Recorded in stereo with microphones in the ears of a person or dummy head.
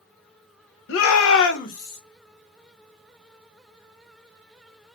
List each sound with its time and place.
0.9 s a shout: 70° left (ahead or behind), 0.5 m; by 2.0 s 30° left (ahead or behind), 0.8 m